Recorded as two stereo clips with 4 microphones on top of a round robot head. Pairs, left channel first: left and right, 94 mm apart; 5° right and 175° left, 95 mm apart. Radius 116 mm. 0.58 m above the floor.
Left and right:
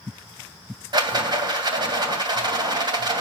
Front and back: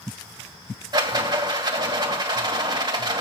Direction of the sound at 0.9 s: 130° right.